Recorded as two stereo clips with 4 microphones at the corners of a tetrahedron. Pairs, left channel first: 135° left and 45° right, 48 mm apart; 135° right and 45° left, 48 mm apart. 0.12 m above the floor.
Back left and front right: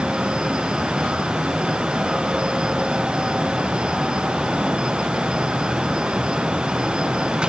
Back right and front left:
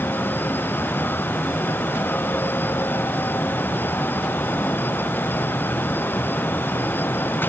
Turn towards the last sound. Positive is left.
No sound to turn to.